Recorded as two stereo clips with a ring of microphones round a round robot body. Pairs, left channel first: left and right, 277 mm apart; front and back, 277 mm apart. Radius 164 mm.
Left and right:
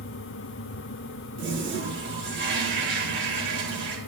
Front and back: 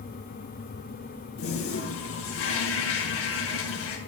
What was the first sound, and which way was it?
A toilet flushing, 40° right.